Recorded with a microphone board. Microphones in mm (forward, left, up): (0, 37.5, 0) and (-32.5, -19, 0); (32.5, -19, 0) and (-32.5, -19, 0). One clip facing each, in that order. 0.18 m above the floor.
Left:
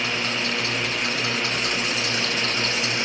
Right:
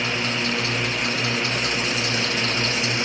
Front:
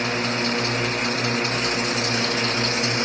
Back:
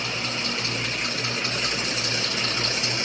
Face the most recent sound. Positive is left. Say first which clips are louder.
# right 1 dB, front 6 dB
turn(degrees=-35)